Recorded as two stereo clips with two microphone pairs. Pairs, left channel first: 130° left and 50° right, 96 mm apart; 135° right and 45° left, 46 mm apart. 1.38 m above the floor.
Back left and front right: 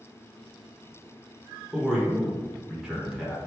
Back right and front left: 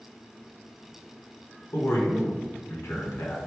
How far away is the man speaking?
About 1.1 m.